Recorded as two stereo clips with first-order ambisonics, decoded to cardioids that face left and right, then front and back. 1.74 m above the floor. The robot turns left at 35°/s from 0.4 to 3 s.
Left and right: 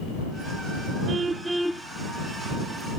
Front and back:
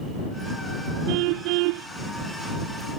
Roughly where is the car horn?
Behind.